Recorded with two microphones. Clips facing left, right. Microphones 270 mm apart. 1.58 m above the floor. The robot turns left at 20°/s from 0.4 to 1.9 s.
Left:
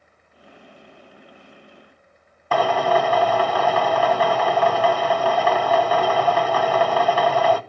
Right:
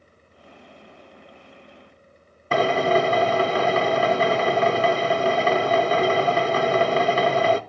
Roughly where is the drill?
Right.